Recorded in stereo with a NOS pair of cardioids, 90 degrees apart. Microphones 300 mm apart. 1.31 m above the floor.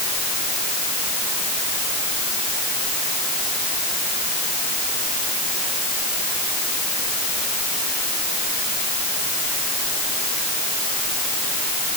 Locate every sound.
Only background noise.